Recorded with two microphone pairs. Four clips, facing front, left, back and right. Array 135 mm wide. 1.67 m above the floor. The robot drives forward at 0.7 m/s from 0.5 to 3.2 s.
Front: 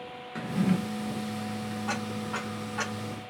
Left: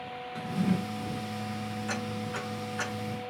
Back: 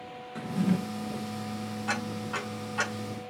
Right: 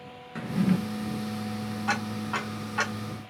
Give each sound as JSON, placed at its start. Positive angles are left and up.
{"t": 0.3, "sound": "a drawer", "azimuth_deg": -30, "distance_m": 0.8}
{"t": 1.9, "sound": "ticking", "azimuth_deg": -100, "distance_m": 4.5}